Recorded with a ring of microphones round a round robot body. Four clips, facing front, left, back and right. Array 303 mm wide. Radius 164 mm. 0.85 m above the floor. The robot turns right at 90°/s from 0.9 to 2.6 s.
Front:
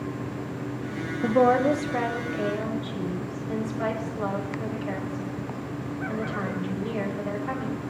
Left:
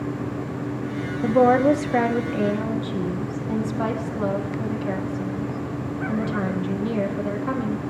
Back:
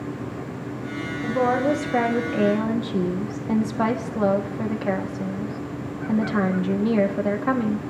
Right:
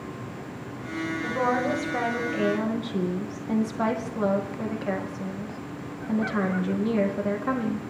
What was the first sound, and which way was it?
A woman speaking, 60° left.